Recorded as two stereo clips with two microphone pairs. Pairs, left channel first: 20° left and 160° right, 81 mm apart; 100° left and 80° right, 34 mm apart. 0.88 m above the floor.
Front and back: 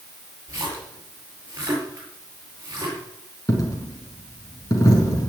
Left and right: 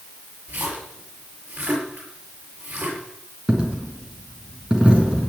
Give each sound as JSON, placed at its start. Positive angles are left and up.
{"t": 0.5, "sound": "a splash", "azimuth_deg": -110, "distance_m": 8.5}
{"t": 3.5, "sound": "a dropped coin", "azimuth_deg": -25, "distance_m": 4.0}